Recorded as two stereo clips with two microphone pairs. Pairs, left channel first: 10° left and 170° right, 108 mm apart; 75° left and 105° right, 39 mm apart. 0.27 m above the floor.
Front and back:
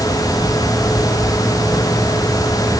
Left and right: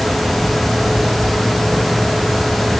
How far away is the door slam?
No door slam in this recording.